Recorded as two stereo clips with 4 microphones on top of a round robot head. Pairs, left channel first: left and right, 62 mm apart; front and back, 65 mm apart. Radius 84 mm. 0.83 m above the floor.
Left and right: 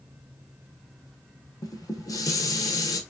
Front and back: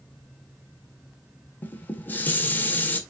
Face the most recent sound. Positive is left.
turn(degrees=60)